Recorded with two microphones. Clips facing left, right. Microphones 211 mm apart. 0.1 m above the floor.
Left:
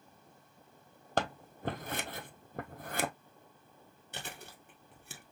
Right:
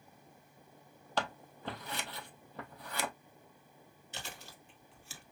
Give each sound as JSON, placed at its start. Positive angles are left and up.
{"t": 1.2, "sound": "scissors", "side_deg": 50, "distance_m": 0.7}
{"t": 4.1, "sound": "chewing", "side_deg": 55, "distance_m": 1.5}